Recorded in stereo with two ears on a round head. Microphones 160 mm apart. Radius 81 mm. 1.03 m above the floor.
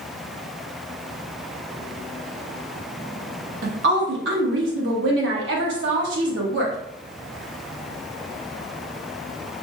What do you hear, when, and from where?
3.6 s a woman speaking: 75° right (ahead or behind), 1.2 m